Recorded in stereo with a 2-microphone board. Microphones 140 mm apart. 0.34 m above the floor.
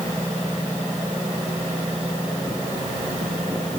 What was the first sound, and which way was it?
Only background noise.